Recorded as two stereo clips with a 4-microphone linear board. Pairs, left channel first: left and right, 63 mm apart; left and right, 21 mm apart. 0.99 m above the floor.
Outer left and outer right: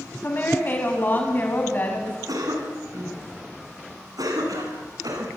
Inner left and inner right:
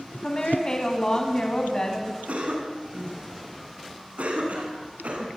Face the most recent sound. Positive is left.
turn(degrees=-75)  # may be behind; listen again after turning